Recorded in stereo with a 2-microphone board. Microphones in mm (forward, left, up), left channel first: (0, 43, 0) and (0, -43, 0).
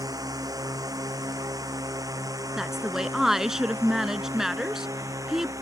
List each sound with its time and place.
0.0 s a drone: 45° right (ahead or behind); by 5.6 s 40° right (ahead or behind)
2.6 s a woman speaking: 5° right (ahead or behind)